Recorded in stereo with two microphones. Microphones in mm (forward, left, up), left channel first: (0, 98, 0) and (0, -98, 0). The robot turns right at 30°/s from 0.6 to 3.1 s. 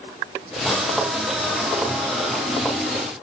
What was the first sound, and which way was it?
Only background noise.